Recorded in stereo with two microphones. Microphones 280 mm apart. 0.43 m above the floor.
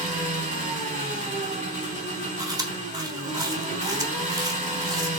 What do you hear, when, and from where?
0.0 s an engine running: 25° right (ahead or behind), 2.5 m
2.4 s chewing: 10° right (ahead or behind), 1.1 m